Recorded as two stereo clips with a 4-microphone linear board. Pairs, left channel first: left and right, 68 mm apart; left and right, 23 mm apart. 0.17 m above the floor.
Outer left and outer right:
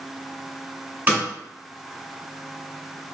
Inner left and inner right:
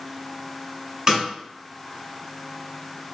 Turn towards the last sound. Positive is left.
turn(degrees=-25)  # may be behind; listen again after turning